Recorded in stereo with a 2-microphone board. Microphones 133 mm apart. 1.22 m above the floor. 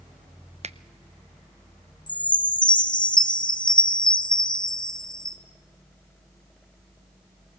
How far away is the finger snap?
About 0.6 m.